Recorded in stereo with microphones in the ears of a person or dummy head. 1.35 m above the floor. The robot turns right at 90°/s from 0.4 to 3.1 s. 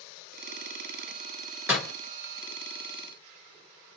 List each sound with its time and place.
1.7 s a door slam: 5° right (ahead or behind), 1.0 m; by 1.9 s 15° left (ahead or behind), 1.0 m